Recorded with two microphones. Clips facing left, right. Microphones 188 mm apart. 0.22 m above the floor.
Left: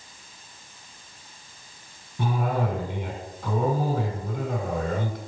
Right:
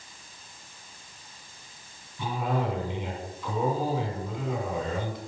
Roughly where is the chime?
No chime in this recording.